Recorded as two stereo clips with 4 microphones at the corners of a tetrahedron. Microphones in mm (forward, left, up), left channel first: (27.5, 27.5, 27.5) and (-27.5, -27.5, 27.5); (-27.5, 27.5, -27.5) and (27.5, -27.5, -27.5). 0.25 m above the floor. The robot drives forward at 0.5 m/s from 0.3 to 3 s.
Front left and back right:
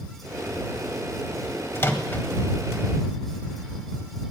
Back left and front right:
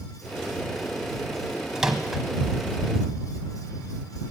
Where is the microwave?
30° left, 1.1 m; by 2.2 s 45° left, 1.0 m.